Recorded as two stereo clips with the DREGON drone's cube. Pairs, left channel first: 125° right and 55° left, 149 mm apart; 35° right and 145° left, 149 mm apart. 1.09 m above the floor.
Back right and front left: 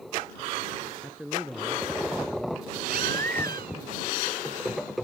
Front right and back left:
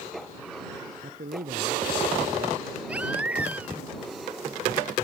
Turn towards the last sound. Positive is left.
turn(degrees=65)